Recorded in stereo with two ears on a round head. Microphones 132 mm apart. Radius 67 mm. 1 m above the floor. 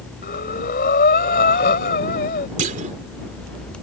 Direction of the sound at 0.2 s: 65° left (ahead or behind).